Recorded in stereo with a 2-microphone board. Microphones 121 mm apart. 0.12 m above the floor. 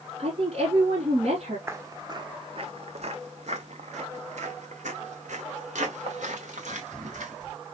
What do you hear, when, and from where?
0.2 s a woman speaking: 60° right (ahead or behind), 3 m
1.7 s footsteps: 20° right (ahead or behind), 0.7 m; by 7.6 s 90° right, 3 m